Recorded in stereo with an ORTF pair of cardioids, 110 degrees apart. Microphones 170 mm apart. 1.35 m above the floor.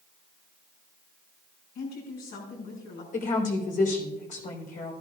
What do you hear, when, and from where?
1.8 s a woman speaking: 60° left, 6 m
3.1 s a woman speaking: 50° left, 4 m